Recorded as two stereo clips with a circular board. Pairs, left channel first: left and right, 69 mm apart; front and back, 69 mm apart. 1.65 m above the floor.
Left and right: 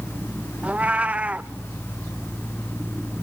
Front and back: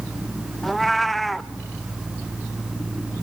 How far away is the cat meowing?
About 0.8 m.